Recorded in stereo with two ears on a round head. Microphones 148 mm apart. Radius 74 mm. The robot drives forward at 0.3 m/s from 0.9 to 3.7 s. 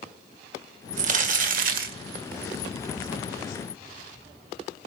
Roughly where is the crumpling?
Right.